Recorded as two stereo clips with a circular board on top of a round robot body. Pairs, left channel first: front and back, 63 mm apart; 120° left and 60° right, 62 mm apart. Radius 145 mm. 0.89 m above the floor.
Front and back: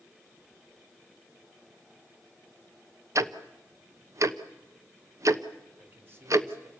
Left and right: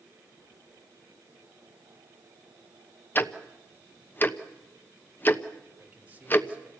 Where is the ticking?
170° left, 1.2 m.